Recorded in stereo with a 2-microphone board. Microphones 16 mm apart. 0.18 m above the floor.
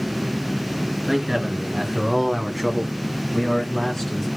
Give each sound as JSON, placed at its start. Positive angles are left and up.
{"t": 1.1, "sound": "a man speaking", "side_deg": -30, "distance_m": 2.5}